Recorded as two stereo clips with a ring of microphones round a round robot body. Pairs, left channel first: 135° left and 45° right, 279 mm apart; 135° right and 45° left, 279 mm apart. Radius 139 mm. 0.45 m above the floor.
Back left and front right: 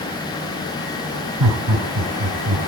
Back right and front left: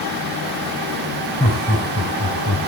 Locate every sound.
1.4 s laughter: 70° right, 2 m; by 2.6 s 85° right, 3.5 m